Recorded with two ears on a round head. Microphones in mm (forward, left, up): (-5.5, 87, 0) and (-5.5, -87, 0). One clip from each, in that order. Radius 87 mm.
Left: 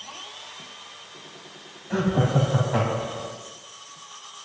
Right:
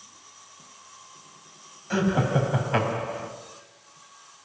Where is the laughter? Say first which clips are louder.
Even; 60° right (ahead or behind), 3.5 m.